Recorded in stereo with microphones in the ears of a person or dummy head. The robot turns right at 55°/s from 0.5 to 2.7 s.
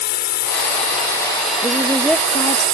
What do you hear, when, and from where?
0.0 s a drone: 125° left; by 2.7 s 115° right
1.6 s a woman speaking: 25° right; by 2.6 s 35° left